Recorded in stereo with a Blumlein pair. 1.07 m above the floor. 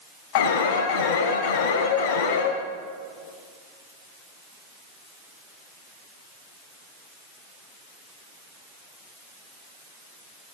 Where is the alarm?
50° left, 4.5 m.